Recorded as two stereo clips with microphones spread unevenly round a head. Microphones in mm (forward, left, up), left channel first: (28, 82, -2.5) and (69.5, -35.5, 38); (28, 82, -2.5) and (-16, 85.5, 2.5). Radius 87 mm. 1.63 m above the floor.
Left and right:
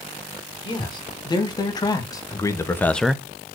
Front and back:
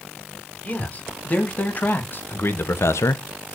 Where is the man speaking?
50° left, 4 m; by 3.2 s 10° right, 0.6 m.